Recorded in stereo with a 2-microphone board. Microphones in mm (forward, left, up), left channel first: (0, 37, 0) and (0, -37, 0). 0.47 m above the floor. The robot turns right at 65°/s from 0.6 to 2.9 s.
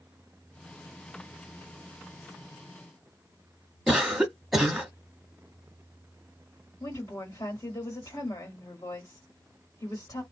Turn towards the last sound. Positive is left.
turn(degrees=45)  # may be behind; listen again after turning